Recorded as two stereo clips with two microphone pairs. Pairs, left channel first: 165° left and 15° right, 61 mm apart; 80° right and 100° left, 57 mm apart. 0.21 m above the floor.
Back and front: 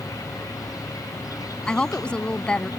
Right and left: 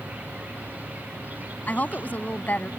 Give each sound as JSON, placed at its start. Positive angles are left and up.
{"t": 0.0, "sound": "an insect", "azimuth_deg": 160}
{"t": 1.7, "sound": "a woman speaking", "azimuth_deg": -125}